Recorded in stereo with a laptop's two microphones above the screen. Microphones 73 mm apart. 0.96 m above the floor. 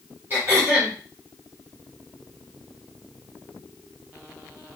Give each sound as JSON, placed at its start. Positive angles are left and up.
{"t": 0.3, "sound": "throat clearing", "side_deg": -35, "distance_m": 4.0}